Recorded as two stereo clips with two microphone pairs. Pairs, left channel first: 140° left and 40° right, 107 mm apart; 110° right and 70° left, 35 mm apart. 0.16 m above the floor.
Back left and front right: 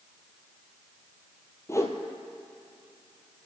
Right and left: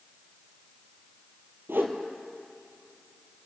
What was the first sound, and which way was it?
A whoosh, 75° left.